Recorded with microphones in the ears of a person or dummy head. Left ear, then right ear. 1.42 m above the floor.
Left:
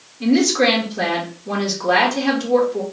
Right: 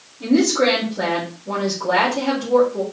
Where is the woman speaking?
70° left (ahead or behind), 1.3 m.